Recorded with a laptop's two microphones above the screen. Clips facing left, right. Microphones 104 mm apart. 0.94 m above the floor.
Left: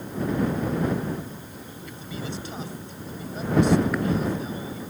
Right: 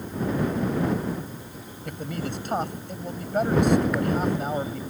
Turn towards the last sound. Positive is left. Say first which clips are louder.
# right 4 dB
turn(degrees=-60)  # may be behind; listen again after turning